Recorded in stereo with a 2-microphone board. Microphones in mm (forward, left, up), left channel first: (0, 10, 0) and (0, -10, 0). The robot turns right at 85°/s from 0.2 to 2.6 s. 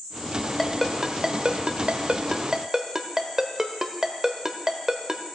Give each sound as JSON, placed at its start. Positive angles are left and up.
{"t": 0.6, "sound": "a ringtone", "side_deg": 15, "distance_m": 0.8}